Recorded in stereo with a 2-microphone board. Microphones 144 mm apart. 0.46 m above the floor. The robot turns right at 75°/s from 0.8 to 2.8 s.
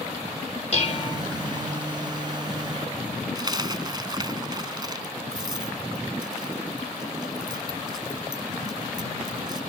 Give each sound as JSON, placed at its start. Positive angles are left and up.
{"t": 0.7, "sound": "dishes clattering", "azimuth_deg": 120}
{"t": 3.4, "sound": "a dropped coin", "side_deg": -30}